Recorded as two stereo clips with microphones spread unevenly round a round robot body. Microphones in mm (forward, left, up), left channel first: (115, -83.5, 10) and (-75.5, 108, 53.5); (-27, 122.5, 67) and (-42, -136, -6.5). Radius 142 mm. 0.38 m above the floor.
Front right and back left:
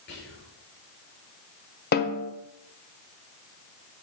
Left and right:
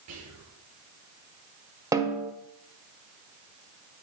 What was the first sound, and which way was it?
Whispering, 95° right.